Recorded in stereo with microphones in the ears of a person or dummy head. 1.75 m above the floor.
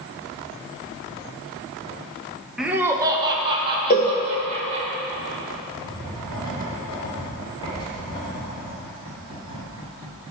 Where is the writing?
25° left (ahead or behind), 3 m.